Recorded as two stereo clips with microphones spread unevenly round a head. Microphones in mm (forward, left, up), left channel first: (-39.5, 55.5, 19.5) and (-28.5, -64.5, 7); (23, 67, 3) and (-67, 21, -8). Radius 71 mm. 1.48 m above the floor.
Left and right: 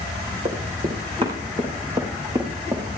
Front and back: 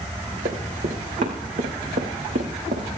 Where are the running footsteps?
125° right, 5.5 m; by 2.9 s 150° right, 5 m.